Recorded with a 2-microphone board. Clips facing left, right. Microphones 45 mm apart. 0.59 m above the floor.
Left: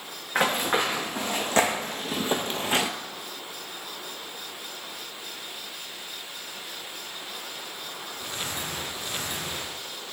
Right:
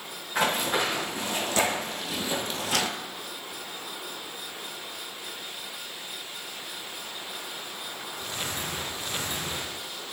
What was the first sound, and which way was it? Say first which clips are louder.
Running footsteps: left 2 dB; 40° left (ahead or behind).